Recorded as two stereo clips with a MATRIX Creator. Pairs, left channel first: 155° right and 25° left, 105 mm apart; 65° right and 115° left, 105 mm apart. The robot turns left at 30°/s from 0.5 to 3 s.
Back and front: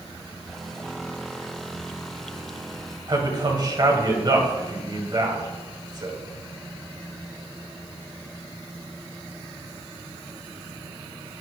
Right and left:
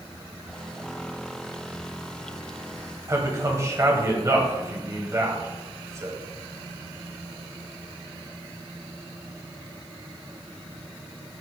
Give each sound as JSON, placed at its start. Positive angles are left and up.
{"t": 3.1, "sound": "a man speaking", "azimuth_deg": 60, "distance_m": 2.5}